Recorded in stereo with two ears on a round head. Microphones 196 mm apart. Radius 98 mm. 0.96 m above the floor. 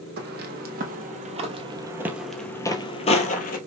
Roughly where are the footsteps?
Right.